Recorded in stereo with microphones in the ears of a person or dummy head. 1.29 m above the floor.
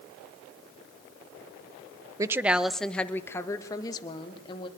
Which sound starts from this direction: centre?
A woman speaking, at 2.2 s.